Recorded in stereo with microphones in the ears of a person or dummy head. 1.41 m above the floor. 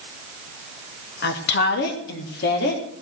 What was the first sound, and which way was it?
A woman speaking, 65° left (ahead or behind).